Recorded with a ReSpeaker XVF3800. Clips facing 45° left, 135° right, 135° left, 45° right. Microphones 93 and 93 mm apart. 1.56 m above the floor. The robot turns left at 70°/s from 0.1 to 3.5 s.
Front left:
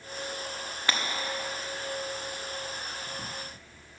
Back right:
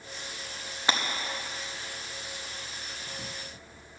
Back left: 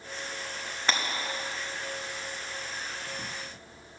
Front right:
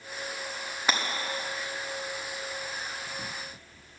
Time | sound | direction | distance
0.9 | breaking glass | 110° right | 0.9 m